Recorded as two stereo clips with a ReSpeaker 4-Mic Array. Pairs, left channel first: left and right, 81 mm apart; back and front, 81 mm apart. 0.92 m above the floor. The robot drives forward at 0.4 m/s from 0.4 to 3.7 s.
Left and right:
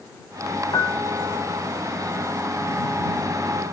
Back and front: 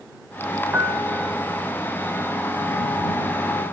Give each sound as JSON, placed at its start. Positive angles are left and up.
{"t": 0.7, "sound": "a piano", "azimuth_deg": 70, "distance_m": 1.6}